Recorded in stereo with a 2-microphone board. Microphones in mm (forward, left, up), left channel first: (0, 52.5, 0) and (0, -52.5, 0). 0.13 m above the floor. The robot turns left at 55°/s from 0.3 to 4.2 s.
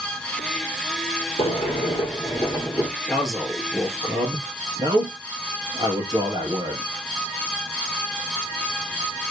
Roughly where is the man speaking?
Centre.